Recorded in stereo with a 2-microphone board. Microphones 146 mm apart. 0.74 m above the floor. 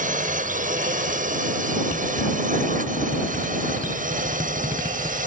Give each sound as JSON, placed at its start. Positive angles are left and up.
{"t": 0.0, "sound": "a drone", "side_deg": -65}